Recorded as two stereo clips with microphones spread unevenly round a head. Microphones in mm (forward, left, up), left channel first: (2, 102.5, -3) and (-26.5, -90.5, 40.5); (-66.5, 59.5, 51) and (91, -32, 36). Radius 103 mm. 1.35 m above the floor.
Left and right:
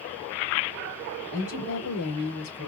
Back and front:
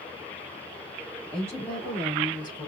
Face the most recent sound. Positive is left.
turn(degrees=80)